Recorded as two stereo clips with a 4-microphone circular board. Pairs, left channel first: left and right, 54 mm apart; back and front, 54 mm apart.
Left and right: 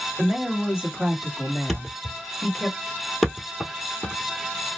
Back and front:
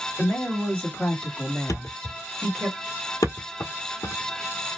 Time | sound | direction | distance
0.2 | a woman speaking | 135° right | 1.8 m
1.7 | a thud | straight behind | 1.1 m